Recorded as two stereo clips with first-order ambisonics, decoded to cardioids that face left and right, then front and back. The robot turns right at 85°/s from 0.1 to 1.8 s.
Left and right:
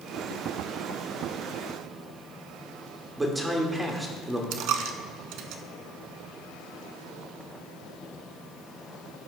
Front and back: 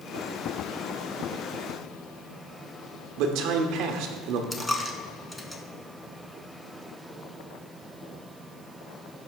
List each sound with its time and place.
3.2 s a man speaking: 170° right, 1.1 m
4.5 s a dropped coin: 80° right, 0.7 m